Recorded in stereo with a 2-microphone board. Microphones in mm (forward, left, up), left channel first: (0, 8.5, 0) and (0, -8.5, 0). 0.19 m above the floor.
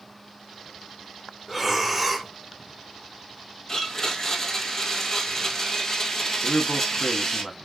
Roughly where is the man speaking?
Centre.